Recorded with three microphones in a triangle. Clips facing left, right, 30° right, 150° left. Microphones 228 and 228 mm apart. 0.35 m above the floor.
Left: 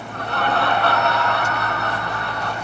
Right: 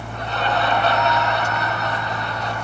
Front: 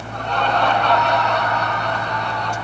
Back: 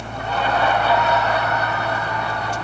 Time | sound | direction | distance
0.1 | laughter | 65° left | 3 m